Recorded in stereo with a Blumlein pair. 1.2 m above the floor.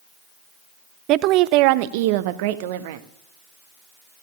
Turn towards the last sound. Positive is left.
turn(degrees=-50)